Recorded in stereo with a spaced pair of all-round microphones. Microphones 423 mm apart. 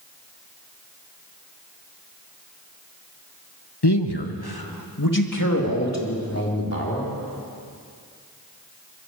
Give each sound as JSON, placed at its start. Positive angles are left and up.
{"t": 3.8, "sound": "a man speaking", "side_deg": 75, "distance_m": 1.3}